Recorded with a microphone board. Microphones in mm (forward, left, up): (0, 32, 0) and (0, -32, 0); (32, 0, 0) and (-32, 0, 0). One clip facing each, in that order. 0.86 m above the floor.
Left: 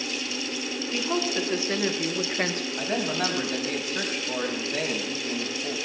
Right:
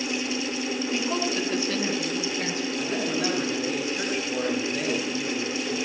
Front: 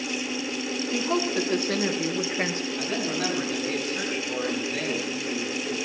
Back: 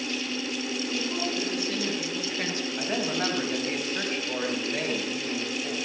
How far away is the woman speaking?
About 1.8 m.